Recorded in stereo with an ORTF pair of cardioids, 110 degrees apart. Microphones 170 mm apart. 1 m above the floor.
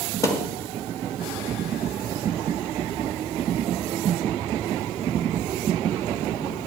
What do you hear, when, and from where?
0.2 s a thud: 20° left, 2.0 m